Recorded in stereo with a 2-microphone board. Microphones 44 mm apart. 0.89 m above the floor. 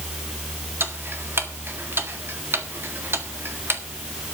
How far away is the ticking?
About 1.6 m.